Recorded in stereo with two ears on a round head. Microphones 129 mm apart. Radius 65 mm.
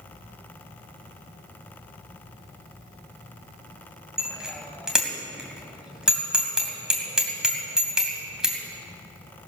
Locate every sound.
4.2 s a bicycle bell: 5° right (ahead or behind), 2.5 m